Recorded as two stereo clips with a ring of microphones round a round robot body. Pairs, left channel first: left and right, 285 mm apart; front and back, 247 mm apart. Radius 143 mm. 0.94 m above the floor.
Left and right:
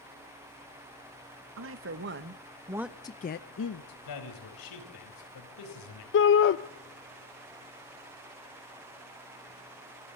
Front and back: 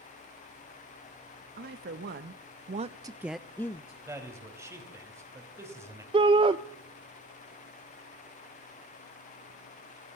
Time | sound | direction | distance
1.6 | a woman speaking | 130° right | 1.6 m
4.0 | a man speaking | 100° left | 4.5 m
6.1 | a shout | 115° left | 0.6 m